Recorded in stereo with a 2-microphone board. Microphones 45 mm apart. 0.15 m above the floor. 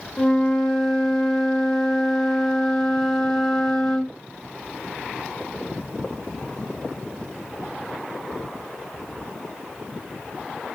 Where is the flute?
15° left (ahead or behind), 1.0 m.